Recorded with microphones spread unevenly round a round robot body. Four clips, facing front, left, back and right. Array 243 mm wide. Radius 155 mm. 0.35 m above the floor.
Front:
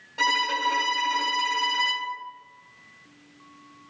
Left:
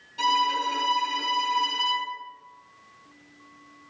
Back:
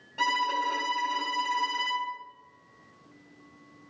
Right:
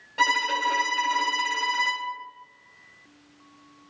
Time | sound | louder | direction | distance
0.2 | a violin | left 1 dB, front 2 dB | 90° right | 2 m